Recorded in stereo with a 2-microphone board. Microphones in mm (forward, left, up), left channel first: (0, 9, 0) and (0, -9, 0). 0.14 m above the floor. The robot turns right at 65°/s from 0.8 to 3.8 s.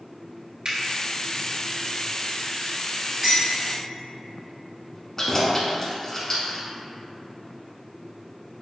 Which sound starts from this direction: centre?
Dishes clattering, at 3.2 s.